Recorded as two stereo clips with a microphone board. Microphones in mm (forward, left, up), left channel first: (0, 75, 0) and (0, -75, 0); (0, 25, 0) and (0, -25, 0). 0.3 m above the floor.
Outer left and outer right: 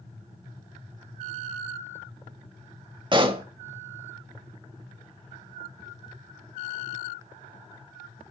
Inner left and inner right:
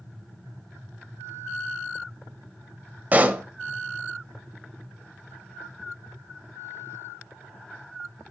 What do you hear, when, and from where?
3.1 s a pop: 35° right (ahead or behind), 0.6 m